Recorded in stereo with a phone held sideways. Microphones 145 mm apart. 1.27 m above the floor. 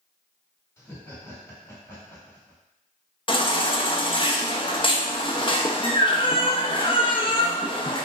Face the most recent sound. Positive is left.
turn(degrees=35)  # may be behind; listen again after turning